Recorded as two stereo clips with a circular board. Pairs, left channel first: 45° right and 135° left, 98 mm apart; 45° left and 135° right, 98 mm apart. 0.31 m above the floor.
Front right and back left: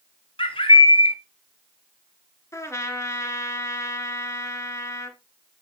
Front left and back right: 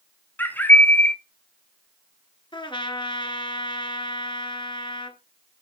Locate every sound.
0.4 s a bird: 25° right, 0.9 m
2.5 s a trumpet: 15° left, 1.2 m